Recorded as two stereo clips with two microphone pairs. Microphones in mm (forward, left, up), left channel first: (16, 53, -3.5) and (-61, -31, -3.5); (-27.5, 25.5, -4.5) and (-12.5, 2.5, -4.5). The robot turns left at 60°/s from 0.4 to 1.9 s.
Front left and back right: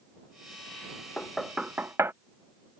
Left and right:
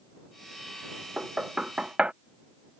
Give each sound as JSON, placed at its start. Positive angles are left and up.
{"t": 1.2, "sound": "knocking", "azimuth_deg": -30}